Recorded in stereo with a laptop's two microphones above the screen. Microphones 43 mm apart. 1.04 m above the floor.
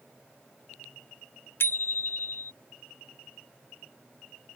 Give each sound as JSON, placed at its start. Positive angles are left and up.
{"t": 1.6, "sound": "a bicycle bell", "side_deg": 60}